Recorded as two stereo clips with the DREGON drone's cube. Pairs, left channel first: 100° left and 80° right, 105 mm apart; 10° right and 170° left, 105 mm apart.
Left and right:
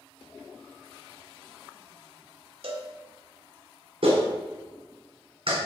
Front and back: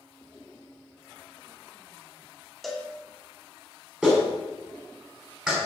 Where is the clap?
110° right, 4 m.